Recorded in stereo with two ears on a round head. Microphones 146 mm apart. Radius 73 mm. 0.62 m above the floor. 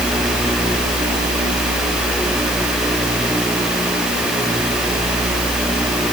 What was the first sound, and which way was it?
Only background noise.